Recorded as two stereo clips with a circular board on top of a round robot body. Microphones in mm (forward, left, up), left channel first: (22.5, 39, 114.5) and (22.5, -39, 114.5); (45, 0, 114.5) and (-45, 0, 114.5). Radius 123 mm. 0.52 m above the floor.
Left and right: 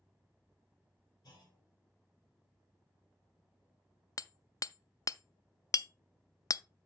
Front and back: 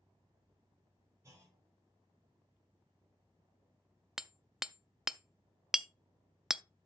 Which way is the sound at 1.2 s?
125° left.